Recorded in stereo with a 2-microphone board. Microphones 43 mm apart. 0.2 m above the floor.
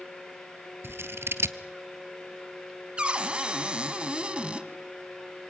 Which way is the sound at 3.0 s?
25° right (ahead or behind).